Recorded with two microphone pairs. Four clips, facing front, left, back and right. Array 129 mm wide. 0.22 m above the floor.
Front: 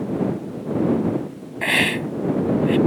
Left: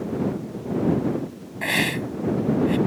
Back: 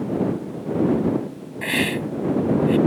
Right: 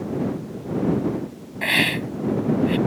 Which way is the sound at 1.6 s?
Straight ahead.